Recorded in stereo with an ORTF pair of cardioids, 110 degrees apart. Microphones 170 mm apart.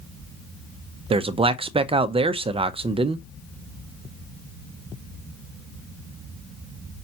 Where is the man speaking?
35° right, 0.5 m.